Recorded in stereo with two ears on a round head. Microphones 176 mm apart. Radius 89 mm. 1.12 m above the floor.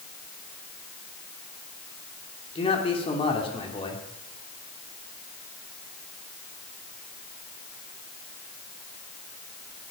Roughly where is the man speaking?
Left.